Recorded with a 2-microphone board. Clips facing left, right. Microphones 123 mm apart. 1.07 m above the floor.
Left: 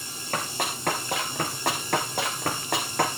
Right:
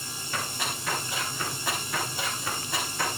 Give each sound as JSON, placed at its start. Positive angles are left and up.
{"t": 0.3, "sound": "running footsteps", "side_deg": 50, "distance_m": 3.5}